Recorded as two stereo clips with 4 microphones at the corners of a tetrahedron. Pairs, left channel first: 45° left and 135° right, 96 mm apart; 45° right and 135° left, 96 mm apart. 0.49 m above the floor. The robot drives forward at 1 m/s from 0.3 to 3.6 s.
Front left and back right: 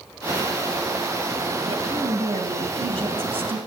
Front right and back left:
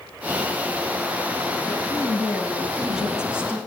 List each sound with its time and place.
1.7 s a woman speaking: 125° right, 3 m; by 3.6 s 145° right, 4 m